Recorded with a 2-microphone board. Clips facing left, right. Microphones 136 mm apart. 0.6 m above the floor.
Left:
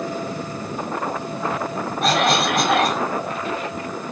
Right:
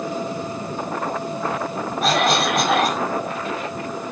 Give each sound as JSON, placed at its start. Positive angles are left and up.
{"t": 2.0, "sound": "a cough", "side_deg": 0, "distance_m": 1.3}